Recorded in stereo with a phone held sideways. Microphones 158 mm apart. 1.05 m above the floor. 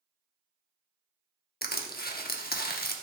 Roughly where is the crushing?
Left.